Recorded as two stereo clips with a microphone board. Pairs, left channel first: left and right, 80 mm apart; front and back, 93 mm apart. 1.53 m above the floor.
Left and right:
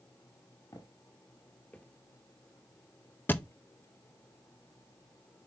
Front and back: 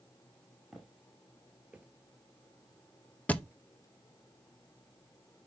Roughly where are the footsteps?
Left.